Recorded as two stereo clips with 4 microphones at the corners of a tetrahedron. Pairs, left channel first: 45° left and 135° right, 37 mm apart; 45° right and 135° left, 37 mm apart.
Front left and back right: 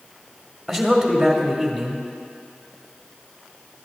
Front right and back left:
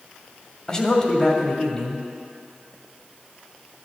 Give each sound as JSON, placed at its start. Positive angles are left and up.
{"t": 0.7, "sound": "a man speaking", "azimuth_deg": -50, "distance_m": 1.0}